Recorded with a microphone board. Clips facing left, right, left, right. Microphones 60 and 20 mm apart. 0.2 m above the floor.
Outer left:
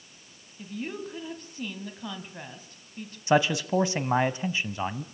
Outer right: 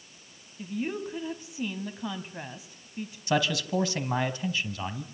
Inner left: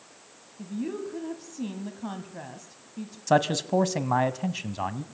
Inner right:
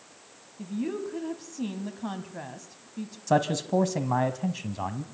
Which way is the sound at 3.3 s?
25° left (ahead or behind).